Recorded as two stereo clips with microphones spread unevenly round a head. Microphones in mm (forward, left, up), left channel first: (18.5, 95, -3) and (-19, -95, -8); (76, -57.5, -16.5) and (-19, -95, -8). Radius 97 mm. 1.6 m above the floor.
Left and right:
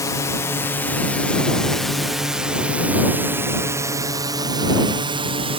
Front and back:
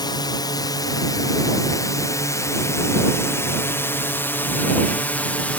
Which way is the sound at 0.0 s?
10° left.